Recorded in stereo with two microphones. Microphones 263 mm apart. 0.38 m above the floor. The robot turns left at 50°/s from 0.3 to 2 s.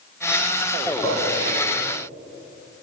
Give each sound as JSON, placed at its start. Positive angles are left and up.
{"t": 0.8, "sound": "a gunshot", "side_deg": 10, "distance_m": 3.0}